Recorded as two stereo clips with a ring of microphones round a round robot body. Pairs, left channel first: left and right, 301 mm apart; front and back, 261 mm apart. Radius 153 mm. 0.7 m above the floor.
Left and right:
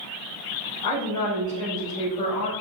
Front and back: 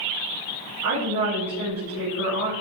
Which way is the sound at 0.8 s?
165° left.